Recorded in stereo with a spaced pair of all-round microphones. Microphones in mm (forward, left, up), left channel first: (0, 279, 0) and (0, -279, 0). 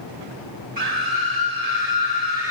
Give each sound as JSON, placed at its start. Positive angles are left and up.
{"t": 0.8, "sound": "a scream", "side_deg": -90, "distance_m": 4.0}